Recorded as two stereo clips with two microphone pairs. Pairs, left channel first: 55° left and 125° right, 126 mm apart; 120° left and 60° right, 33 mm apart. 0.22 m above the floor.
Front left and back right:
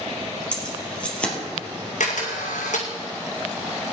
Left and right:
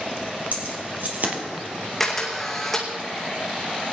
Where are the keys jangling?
25° right, 3.5 m.